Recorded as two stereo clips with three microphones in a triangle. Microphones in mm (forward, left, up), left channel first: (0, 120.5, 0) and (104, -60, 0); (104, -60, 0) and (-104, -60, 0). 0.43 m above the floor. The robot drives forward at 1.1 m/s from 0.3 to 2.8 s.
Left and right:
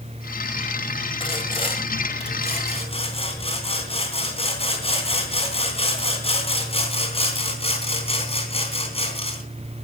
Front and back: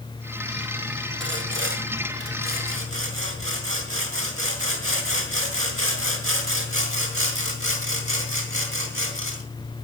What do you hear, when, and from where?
1.2 s sawing: straight behind, 1.7 m